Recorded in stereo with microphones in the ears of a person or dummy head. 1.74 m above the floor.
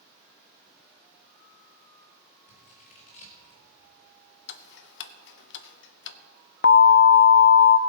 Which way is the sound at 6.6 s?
55° left (ahead or behind).